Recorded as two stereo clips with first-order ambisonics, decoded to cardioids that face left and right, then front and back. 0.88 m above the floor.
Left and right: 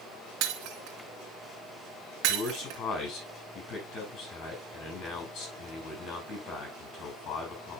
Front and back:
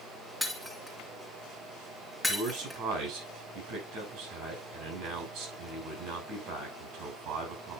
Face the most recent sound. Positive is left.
turn(degrees=140)